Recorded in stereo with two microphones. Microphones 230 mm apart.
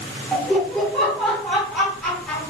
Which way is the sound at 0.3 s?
5° left (ahead or behind).